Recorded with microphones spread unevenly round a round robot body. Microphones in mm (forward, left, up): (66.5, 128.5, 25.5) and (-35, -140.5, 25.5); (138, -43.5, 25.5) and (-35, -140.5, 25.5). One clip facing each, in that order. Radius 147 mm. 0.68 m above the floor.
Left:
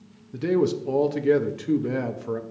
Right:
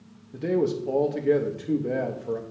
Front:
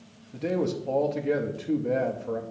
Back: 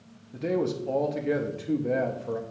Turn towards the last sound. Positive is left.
turn(degrees=120)